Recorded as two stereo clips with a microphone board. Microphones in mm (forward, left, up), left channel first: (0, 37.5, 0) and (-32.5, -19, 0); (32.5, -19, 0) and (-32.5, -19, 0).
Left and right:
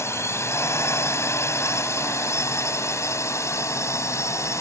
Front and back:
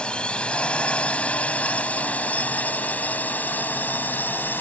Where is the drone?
70° left; by 4.6 s 50° left.